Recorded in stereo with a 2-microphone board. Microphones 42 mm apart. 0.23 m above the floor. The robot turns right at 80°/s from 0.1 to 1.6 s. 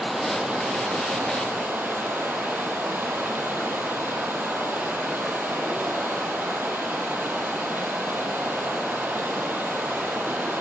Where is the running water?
Straight behind, 3.5 m; by 10.6 s 60° right, 3.5 m.